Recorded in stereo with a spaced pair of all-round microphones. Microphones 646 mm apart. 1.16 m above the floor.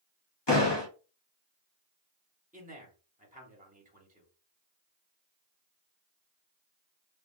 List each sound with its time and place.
0.5 s a door slam: 40° left (ahead or behind), 1.1 m
2.5 s a man speaking: 10° right (ahead or behind), 1.1 m